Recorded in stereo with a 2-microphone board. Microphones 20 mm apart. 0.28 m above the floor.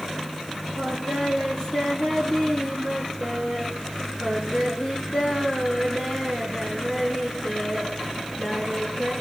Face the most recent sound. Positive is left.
turn(degrees=35)  # may be behind; listen again after turning